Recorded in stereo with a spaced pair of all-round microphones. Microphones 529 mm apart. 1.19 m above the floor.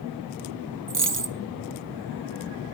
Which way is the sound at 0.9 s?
35° right (ahead or behind).